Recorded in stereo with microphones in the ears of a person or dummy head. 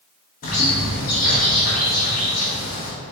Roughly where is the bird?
Left.